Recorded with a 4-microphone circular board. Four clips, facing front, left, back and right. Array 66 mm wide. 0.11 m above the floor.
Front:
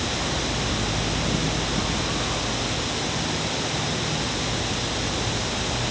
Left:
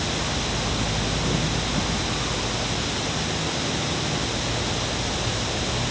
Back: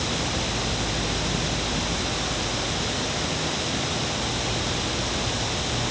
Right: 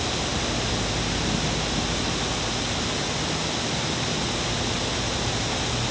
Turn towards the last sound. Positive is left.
No sound to turn to.